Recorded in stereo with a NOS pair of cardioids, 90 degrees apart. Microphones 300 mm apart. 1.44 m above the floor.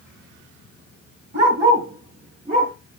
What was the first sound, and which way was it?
A dog barking, 40° right.